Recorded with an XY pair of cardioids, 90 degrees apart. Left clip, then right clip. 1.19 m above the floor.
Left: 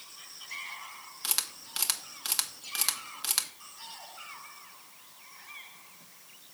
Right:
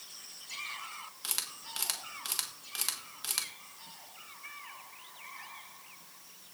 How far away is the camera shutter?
About 1.3 m.